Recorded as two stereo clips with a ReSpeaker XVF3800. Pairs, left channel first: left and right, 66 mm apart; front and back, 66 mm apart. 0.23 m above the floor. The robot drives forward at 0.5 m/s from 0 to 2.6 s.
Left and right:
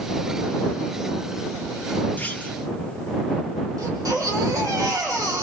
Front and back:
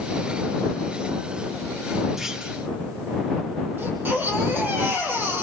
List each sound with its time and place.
2.2 s a clunk: 100° left, 1.3 m; by 2.6 s 120° left, 1.3 m
3.8 s a baby crying: 120° right, 4.5 m